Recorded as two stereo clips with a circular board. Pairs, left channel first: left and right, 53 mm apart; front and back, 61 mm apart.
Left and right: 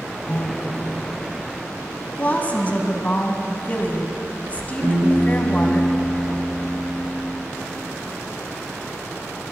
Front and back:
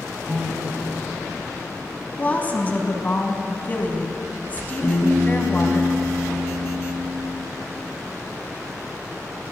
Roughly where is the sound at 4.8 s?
Ahead right.